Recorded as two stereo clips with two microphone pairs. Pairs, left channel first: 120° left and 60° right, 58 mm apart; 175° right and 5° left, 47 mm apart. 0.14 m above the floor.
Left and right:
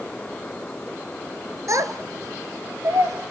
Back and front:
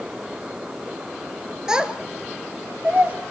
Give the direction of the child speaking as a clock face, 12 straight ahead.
2 o'clock.